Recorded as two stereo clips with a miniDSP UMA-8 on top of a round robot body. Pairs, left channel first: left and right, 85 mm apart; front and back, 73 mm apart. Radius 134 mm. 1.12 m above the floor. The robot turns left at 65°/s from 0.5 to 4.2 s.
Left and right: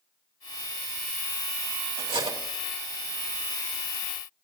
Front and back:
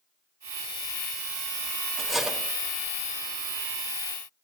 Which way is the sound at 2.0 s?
80° right.